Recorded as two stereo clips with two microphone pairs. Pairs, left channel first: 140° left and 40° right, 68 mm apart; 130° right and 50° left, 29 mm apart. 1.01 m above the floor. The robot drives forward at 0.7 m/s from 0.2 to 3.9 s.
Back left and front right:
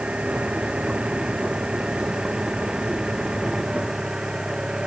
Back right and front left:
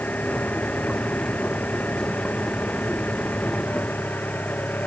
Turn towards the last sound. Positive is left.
turn(degrees=-120)